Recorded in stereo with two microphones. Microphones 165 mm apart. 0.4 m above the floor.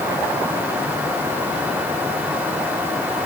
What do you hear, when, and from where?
Only background noise.